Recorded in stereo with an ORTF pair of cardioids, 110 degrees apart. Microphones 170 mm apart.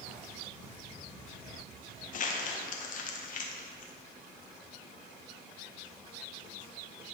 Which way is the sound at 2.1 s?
55° left.